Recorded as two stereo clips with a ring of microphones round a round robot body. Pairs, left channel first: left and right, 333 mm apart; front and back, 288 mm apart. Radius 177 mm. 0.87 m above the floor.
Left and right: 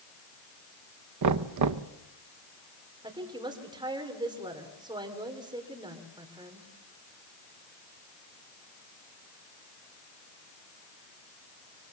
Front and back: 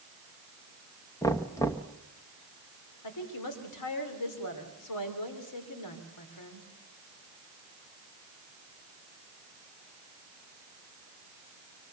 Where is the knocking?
80° right, 0.8 m.